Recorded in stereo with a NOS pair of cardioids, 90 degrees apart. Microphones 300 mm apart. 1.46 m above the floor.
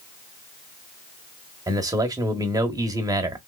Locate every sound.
1.7 s a man speaking: 10° right, 1.0 m